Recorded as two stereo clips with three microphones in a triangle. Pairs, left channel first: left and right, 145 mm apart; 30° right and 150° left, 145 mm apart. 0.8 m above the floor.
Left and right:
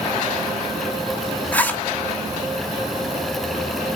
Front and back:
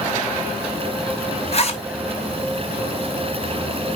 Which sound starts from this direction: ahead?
A zipper, at 1.5 s.